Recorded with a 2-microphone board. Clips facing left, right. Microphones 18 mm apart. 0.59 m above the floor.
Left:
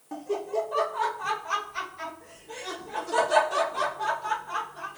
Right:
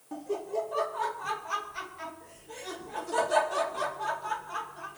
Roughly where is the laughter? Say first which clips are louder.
Left 3 dB; left.